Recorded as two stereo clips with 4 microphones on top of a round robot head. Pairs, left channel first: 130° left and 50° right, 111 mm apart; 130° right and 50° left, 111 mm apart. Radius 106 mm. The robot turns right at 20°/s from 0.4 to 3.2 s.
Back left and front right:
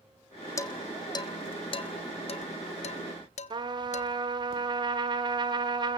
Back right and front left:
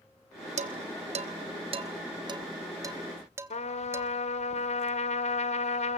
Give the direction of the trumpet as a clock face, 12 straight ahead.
3 o'clock.